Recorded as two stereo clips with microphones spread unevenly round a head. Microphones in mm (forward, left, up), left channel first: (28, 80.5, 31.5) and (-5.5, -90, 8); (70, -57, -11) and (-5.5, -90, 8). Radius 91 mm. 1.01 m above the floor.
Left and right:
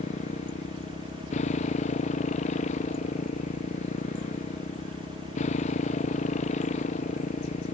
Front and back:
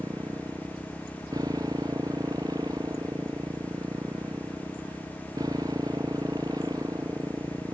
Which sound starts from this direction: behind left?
A motorcycle, at 0.0 s.